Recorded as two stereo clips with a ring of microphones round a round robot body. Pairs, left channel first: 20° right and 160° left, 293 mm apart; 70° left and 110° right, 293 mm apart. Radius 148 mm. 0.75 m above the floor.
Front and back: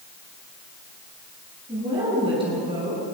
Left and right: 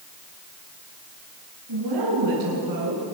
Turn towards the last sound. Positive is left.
turn(degrees=-130)